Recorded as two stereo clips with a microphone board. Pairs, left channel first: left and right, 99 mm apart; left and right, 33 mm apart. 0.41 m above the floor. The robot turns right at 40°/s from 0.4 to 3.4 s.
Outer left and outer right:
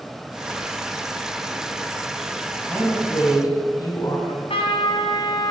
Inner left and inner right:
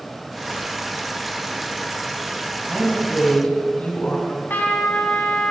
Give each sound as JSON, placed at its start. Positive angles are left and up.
{"t": 2.7, "sound": "a woman speaking", "side_deg": 10, "distance_m": 3.0}
{"t": 4.3, "sound": "a trumpet", "side_deg": 80, "distance_m": 1.5}